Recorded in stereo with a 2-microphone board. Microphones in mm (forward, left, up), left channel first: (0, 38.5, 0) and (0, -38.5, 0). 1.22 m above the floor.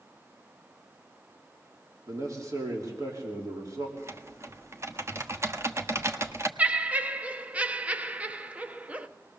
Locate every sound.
2.1 s a man speaking: 50° right (ahead or behind), 3.5 m
4.0 s typing on a keyboard: 35° right (ahead or behind), 1.2 m
6.6 s laughter: 20° right (ahead or behind), 0.9 m